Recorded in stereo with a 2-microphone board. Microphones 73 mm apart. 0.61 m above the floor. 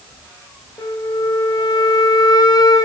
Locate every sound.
0.8 s a flute: 75° left (ahead or behind), 2 m